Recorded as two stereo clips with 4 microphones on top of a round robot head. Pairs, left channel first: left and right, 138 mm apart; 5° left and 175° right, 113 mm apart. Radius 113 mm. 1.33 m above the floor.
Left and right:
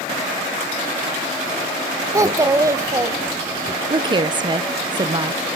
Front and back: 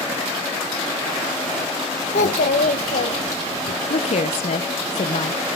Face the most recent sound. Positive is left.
turn(degrees=-30)